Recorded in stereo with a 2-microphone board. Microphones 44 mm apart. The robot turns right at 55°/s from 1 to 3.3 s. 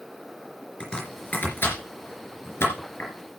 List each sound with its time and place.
0.8 s chopping: 25° left (ahead or behind), 3.5 m; by 3.1 s 40° left (ahead or behind), 3.5 m